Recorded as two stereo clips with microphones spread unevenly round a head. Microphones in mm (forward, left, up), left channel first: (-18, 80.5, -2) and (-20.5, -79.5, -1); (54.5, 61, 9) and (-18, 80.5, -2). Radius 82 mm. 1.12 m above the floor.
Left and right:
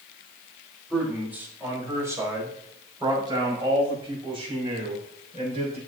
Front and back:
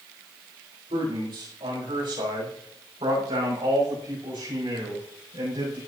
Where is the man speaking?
175° right, 4 m; by 5.8 s 140° right, 6.5 m.